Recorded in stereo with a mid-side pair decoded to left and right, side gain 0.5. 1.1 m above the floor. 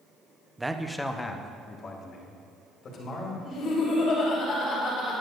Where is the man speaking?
10° right, 0.9 m; by 3.4 s 60° left, 3.5 m.